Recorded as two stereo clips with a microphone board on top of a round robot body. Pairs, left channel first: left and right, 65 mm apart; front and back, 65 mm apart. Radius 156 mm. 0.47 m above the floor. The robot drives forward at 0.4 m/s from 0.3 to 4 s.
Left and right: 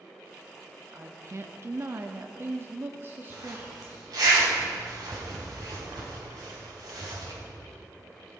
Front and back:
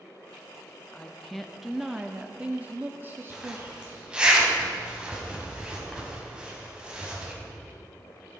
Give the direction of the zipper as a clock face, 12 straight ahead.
3 o'clock.